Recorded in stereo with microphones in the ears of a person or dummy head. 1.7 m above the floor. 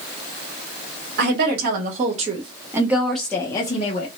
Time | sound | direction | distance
1.2 | a woman speaking | 60° right (ahead or behind) | 1.3 m